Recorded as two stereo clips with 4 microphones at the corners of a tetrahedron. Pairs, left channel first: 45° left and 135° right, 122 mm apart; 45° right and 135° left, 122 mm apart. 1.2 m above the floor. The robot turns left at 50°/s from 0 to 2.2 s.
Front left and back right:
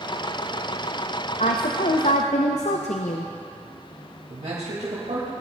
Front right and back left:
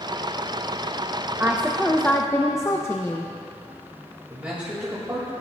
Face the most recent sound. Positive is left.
turn(degrees=-150)